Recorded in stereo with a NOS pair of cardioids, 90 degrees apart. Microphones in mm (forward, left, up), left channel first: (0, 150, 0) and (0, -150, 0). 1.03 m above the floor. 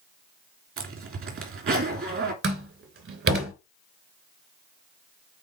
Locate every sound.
0.8 s a zipper: 45° right, 3 m
2.4 s a door slam: 45° right, 3 m